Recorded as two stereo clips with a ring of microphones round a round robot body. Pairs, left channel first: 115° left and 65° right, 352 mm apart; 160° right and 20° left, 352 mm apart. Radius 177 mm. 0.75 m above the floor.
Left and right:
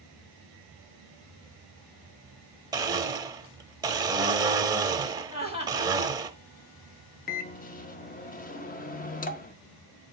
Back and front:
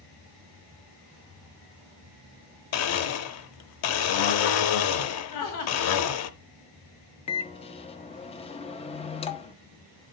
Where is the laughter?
175° left, 4.5 m.